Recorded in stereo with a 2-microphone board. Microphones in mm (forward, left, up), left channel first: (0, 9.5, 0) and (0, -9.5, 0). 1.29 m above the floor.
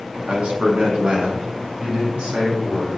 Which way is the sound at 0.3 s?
70° right (ahead or behind).